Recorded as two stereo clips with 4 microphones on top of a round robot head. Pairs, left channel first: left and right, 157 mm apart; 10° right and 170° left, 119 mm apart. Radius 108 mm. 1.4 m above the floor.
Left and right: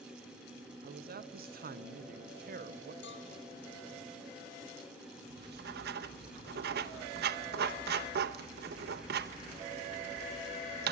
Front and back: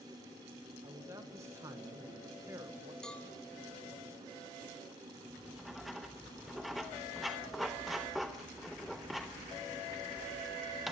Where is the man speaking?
115° right, 1.2 m.